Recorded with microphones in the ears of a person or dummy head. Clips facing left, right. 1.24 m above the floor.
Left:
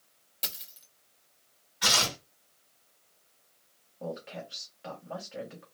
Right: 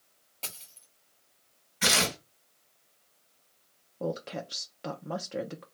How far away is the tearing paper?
About 1.7 m.